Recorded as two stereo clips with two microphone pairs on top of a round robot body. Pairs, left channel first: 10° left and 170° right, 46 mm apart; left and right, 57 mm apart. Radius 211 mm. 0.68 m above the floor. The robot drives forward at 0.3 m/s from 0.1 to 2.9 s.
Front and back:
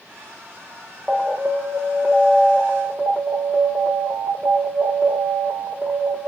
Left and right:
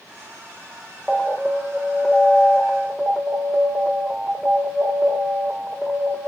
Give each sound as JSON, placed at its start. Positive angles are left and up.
{"t": 1.1, "sound": "an alarm", "azimuth_deg": 180, "distance_m": 1.4}